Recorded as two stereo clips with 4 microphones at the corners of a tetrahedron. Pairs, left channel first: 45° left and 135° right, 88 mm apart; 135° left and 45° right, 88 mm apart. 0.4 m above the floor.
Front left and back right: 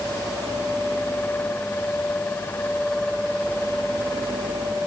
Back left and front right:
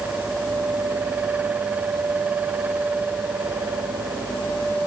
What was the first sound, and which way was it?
Only background noise.